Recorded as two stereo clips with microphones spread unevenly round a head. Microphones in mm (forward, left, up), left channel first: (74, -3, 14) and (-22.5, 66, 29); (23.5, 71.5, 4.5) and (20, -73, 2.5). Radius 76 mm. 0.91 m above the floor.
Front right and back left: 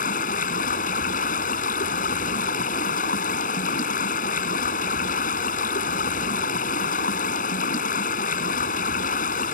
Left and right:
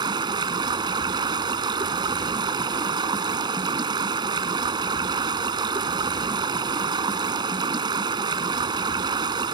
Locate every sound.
0.0 s running water: 30° right